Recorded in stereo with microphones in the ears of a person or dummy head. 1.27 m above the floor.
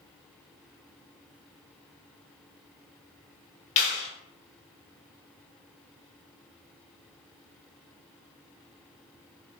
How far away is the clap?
About 0.8 m.